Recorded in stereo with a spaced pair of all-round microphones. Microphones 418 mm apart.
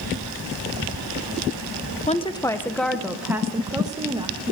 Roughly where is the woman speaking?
Centre.